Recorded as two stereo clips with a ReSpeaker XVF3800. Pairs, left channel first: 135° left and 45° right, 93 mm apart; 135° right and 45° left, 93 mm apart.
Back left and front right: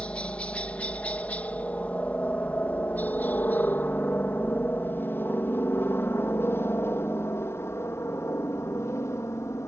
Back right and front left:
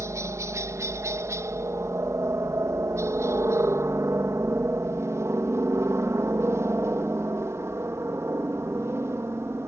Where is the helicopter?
70° left; by 9.7 s 90° left.